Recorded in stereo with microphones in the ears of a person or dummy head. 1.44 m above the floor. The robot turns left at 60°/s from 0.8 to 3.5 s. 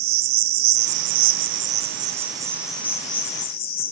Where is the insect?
70° right, 0.9 m; by 3.9 s 130° left, 0.9 m.